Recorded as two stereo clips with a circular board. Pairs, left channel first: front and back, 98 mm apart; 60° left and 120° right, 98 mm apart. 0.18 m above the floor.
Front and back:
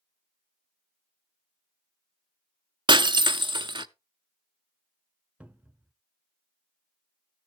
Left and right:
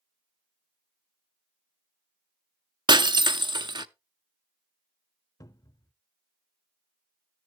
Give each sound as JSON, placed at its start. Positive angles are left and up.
{"t": 2.9, "sound": "breaking glass", "azimuth_deg": -150, "distance_m": 0.5}
{"t": 5.4, "sound": "a cupboard door", "azimuth_deg": 105, "distance_m": 0.6}